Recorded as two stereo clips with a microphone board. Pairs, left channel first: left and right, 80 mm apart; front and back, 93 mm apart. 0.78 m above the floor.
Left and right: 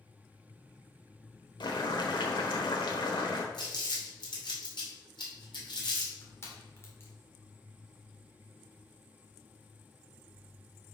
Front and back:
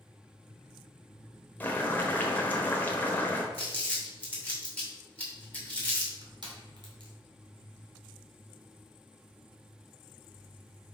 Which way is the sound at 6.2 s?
150° left.